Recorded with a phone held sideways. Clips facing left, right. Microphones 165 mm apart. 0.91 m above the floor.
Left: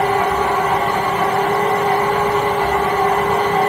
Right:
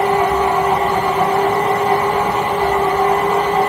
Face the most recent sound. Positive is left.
turn(degrees=-10)  # may be behind; listen again after turning